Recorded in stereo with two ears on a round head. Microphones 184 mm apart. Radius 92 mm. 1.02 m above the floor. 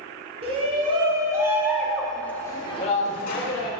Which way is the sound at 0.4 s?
30° right (ahead or behind).